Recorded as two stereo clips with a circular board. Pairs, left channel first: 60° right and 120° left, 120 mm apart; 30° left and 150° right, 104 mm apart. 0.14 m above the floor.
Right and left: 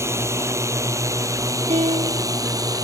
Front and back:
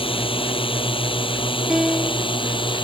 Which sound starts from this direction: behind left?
A piano, at 1.7 s.